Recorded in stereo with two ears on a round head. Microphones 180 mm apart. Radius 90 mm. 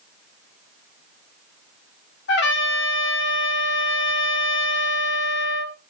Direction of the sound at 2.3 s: 60° left (ahead or behind).